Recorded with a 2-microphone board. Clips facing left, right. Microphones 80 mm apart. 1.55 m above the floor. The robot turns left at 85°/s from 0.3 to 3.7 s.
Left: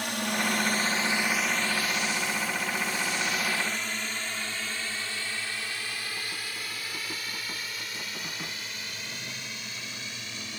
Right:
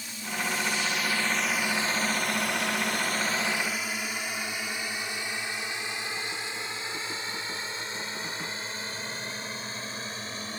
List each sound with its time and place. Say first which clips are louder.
0.0 s a drone: left 5 dB; 70° left (ahead or behind); by 10.6 s 35° right (ahead or behind)